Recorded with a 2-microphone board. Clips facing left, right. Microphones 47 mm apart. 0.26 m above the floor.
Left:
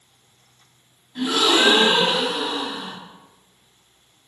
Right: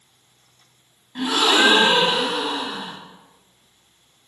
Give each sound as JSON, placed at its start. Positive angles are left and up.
{"t": 1.1, "sound": "a gasp", "side_deg": -50, "distance_m": 1.4}